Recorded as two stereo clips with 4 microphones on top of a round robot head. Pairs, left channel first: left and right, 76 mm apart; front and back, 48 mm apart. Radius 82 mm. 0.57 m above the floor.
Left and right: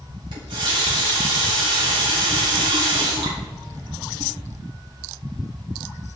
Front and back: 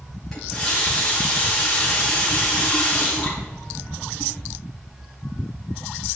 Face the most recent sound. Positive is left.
turn(degrees=-85)